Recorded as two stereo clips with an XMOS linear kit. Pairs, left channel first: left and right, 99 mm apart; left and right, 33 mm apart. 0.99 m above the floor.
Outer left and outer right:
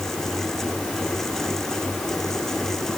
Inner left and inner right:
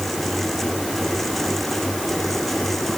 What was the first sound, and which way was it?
Only background noise.